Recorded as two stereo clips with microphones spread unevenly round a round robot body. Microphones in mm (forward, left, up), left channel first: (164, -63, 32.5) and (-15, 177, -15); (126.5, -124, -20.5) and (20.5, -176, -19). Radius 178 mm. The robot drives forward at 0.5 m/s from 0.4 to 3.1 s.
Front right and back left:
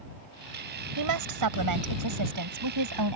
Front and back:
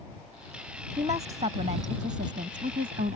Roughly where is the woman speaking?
Behind left.